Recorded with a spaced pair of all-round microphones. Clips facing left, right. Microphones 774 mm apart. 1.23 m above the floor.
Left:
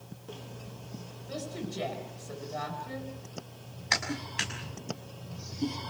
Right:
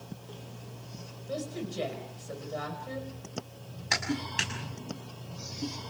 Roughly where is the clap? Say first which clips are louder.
Right 4 dB; right.